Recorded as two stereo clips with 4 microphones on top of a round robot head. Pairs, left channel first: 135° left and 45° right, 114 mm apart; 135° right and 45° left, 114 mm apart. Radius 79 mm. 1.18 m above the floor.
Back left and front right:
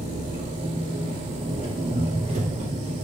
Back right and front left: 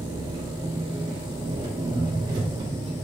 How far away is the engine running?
About 2 m.